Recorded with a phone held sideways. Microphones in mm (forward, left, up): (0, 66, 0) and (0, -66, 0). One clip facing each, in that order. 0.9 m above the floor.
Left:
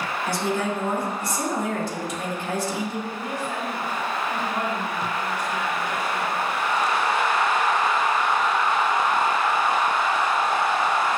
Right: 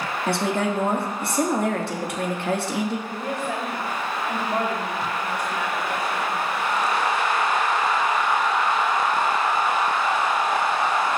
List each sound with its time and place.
0.3 s a woman speaking: 70° right (ahead or behind), 1.4 m
3.1 s a woman speaking: 65° right (ahead or behind), 2.5 m